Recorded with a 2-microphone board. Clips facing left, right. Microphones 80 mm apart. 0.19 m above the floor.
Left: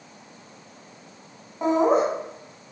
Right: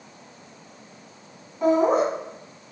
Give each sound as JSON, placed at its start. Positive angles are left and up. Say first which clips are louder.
{"t": 1.6, "sound": "laughter", "louder": "right 1 dB", "side_deg": 30, "distance_m": 1.4}